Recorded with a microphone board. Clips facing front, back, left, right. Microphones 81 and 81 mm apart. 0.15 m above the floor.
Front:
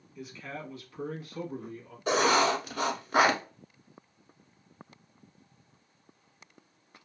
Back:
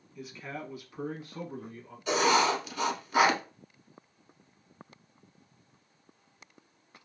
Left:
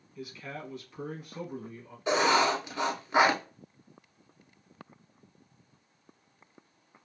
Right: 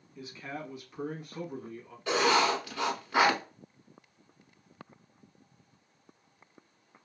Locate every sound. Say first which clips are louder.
0.1 s a man speaking: back 1 dB, even; 85° right, 1.1 m; by 2.0 s 160° left, 1.3 m
2.1 s writing: front 1 dB, left 1 dB; 30° left, 0.9 m